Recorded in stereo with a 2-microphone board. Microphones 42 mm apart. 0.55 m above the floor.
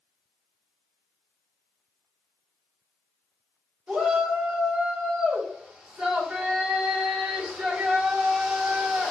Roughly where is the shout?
Right.